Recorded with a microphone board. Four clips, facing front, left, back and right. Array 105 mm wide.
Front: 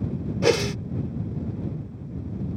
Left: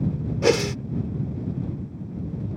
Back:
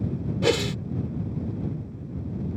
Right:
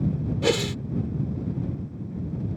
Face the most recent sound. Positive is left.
turn(degrees=55)